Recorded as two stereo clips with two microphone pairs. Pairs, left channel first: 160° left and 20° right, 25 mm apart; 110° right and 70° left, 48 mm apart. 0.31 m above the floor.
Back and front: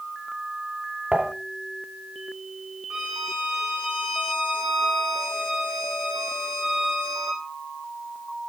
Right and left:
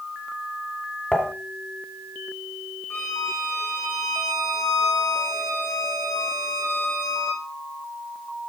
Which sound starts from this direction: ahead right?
Dishes clattering, at 1.1 s.